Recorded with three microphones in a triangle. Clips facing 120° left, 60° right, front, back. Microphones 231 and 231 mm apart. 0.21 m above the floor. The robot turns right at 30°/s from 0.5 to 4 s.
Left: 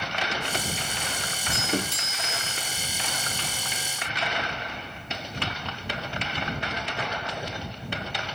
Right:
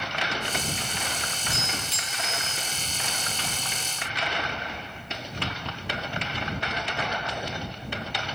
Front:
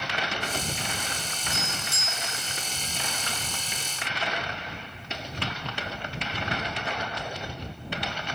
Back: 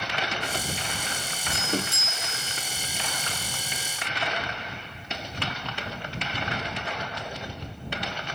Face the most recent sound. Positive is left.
turn(degrees=-140)